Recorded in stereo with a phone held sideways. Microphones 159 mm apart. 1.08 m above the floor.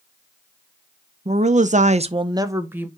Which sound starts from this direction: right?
A woman speaking, at 1.2 s.